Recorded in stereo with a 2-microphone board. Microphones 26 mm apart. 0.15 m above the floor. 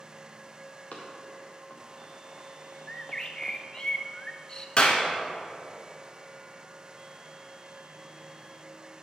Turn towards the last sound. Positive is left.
turn(degrees=35)  # may be behind; listen again after turning